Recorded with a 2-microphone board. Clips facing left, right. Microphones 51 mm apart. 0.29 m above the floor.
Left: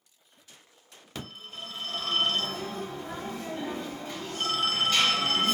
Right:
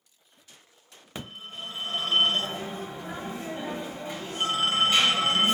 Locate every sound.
1.1 s a phone ringing: 20° right (ahead or behind), 0.7 m